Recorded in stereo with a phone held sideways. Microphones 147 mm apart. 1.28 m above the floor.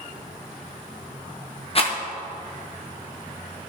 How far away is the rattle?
About 1.1 m.